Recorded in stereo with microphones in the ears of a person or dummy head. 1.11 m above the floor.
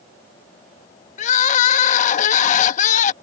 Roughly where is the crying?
Left.